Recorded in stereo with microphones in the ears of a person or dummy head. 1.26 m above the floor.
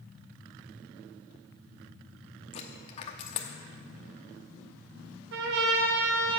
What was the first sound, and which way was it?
A dropped coin, 30° left (ahead or behind).